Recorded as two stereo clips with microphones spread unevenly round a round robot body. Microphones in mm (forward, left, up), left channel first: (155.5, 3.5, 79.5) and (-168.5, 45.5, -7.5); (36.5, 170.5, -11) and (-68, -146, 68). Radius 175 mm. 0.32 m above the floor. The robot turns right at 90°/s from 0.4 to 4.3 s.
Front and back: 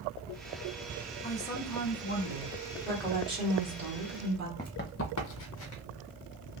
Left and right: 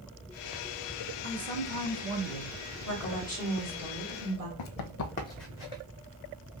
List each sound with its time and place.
1.2 s a man speaking: 95° right, 0.9 m; by 2.5 s 25° left, 0.9 m
2.9 s a woman speaking: 75° left, 1.9 m; by 4.5 s 155° right, 1.9 m
4.6 s running footsteps: 60° left, 0.7 m; by 5.8 s 45° right, 0.9 m